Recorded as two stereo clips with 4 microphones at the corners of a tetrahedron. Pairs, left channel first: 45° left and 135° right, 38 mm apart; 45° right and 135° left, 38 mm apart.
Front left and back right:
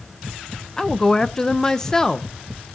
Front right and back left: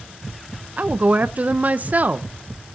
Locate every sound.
0.8 s a woman speaking: 115° left, 0.6 m